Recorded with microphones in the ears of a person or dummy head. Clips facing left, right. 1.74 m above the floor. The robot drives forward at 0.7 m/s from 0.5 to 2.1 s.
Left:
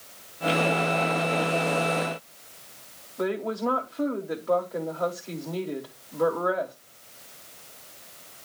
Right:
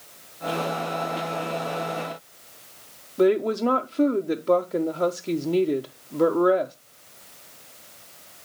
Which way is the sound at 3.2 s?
40° right (ahead or behind).